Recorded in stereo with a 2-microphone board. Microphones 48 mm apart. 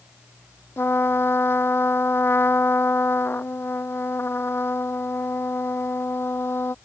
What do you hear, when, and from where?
0.8 s a trumpet: 50° left (ahead or behind)